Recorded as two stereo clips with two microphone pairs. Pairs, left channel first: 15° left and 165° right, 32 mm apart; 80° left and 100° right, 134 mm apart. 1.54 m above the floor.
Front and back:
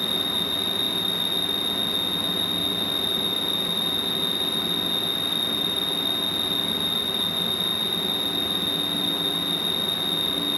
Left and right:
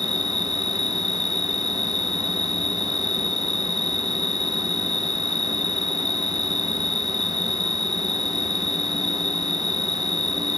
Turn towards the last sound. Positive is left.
turn(degrees=120)